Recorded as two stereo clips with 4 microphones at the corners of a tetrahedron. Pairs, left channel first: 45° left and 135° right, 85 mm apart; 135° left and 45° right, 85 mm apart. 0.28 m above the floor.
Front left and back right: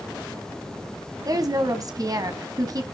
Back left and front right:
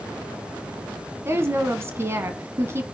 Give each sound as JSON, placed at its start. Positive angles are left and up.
{"t": 1.2, "sound": "a woman speaking", "azimuth_deg": -100, "distance_m": 1.9}